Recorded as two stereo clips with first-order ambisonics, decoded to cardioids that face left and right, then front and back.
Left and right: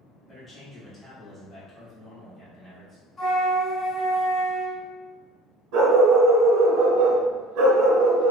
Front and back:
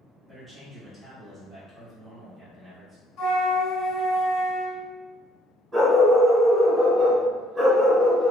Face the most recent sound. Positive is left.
turn(degrees=-100)